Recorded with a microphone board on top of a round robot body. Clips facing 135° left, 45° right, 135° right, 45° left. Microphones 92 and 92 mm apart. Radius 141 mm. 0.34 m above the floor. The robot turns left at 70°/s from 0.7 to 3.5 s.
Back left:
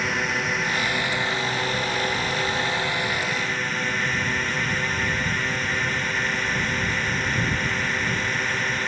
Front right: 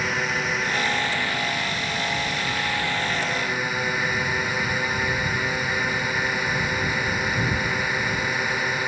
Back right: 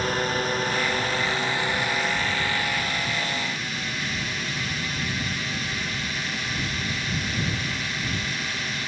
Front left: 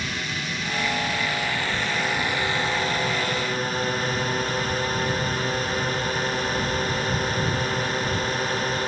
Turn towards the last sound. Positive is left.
turn(degrees=30)